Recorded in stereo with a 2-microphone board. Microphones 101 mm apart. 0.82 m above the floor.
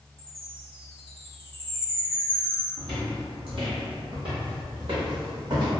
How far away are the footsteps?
About 1.6 m.